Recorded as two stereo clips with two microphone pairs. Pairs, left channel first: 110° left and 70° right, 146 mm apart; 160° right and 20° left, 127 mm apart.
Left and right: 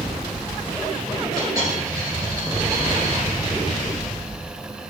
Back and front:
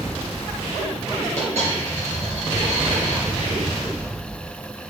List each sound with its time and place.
1.4 s a dropped coin: 5° right, 3.5 m